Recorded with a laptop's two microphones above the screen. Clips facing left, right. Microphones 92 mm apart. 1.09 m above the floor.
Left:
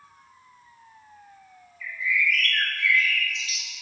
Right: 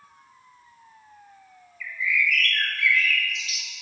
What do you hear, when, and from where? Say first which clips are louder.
1.8 s a bird: even; 35° left (ahead or behind), 1.6 m